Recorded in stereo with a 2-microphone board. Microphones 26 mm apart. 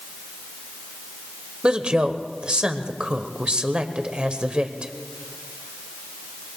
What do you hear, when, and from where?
1.6 s a woman speaking: 40° right (ahead or behind), 1.2 m